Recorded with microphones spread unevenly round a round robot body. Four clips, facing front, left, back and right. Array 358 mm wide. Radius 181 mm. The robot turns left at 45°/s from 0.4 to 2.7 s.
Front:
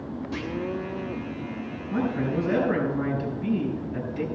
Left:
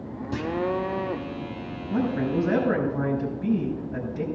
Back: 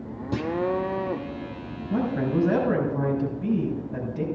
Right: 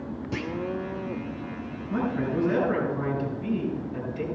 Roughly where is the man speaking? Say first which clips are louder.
Left 2 dB, back 2 dB; behind.